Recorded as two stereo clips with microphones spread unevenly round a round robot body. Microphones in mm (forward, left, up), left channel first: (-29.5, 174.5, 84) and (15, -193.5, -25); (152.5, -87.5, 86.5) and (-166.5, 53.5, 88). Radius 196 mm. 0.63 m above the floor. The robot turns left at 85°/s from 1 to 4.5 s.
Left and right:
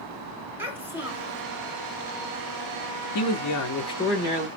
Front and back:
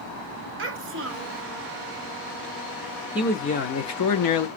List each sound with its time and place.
0.6 s a child speaking: 155° right, 0.8 m; by 1.4 s 170° left, 0.8 m
3.1 s a man speaking: 75° left, 0.8 m; by 4.5 s 40° right, 0.8 m